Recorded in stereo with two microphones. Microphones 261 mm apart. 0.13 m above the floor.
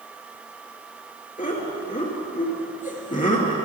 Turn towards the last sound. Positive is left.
turn(degrees=30)  # may be behind; listen again after turning